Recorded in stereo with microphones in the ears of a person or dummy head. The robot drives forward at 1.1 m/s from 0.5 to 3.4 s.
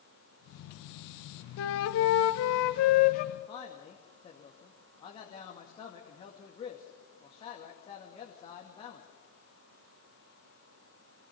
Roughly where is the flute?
Left.